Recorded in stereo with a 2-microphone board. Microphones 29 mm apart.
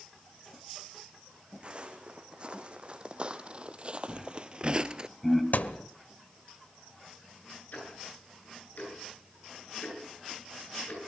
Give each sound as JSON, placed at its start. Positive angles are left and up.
{"t": 1.6, "sound": "footsteps", "side_deg": -35, "distance_m": 2.5}
{"t": 4.1, "sound": "laughter", "side_deg": 10, "distance_m": 3.0}
{"t": 5.5, "sound": "a thud", "side_deg": 65, "distance_m": 1.0}
{"t": 7.7, "sound": "ticking", "side_deg": 65, "distance_m": 8.5}